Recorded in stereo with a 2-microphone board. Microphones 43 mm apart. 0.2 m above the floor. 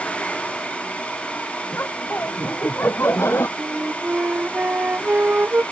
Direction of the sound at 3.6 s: 45° right (ahead or behind).